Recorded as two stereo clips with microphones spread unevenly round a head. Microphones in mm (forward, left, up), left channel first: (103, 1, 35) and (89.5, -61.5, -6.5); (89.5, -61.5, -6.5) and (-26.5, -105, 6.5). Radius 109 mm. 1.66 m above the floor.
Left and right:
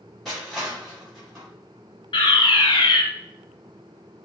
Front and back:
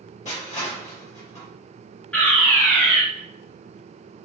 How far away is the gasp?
I don't hear a gasp.